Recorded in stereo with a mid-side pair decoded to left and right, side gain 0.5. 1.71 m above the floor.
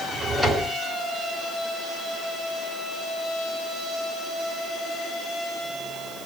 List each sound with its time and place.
0.1 s a drawer: 20° right, 5 m